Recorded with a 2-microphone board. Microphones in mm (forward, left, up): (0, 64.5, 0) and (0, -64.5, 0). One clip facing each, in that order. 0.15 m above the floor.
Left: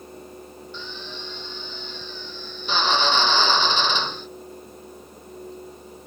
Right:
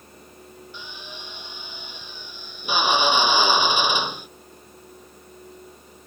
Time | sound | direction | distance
0.7 | a drill | 10° right (ahead or behind) | ?